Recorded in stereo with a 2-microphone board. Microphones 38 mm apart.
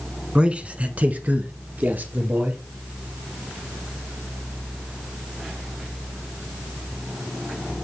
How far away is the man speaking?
About 1.1 m.